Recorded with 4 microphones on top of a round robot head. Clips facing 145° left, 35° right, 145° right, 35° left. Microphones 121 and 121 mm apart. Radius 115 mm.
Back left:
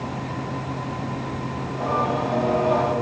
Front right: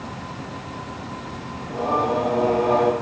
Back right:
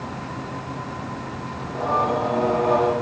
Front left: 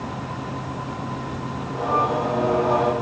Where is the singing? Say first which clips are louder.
Front right 2 dB, even; 50° right, 2 m.